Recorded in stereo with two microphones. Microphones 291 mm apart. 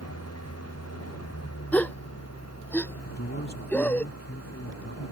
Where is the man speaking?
40° left (ahead or behind).